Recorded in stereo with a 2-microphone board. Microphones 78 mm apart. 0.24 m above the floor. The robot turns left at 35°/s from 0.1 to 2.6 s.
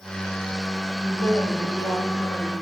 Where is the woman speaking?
160° left, 7 m; by 2.5 s 110° left, 7 m.